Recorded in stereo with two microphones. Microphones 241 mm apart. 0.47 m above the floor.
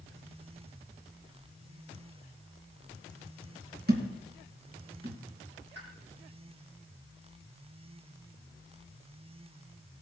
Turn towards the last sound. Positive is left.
turn(degrees=-45)  # may be behind; listen again after turning